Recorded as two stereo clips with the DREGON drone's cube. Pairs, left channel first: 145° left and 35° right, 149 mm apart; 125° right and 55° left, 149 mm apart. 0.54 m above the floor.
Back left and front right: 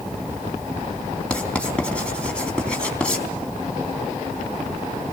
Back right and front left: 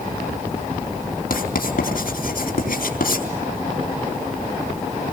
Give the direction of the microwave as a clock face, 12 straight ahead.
No microwave in this recording.